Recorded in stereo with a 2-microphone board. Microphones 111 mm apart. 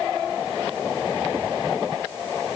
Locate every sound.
Only background noise.